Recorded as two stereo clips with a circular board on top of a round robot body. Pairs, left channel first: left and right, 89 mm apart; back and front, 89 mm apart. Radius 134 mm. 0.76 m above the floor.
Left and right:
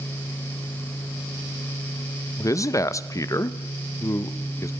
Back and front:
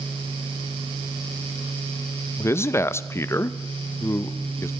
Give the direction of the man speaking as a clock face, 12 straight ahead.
8 o'clock.